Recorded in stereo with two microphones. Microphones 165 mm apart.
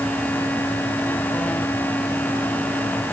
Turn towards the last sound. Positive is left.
No sound to turn to.